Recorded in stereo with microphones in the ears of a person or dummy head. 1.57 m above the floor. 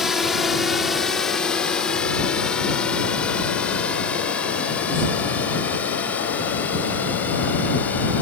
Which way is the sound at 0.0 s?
5° right (ahead or behind).